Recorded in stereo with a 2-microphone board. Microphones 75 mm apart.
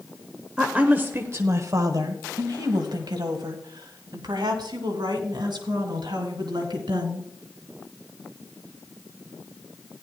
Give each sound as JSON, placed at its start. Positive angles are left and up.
{"t": 0.6, "sound": "a woman speaking", "side_deg": -10, "distance_m": 1.0}